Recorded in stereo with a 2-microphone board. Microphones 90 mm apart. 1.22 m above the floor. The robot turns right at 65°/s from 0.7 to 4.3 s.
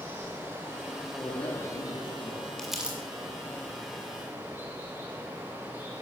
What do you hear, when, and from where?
0.0 s running water: 30° right, 7.5 m; by 6.0 s 155° right, 7.5 m
1.2 s a man speaking: 40° left, 2.5 m; by 2.5 s 125° left, 2.5 m
2.6 s crumpling: 5° left (ahead or behind), 3 m; by 3.0 s 20° right (ahead or behind), 3 m